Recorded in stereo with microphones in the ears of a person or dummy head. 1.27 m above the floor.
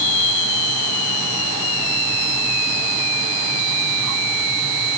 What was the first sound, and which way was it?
Only background noise.